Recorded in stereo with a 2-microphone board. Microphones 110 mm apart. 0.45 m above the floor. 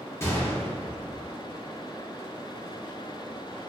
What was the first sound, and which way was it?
A gunshot, 25° left (ahead or behind).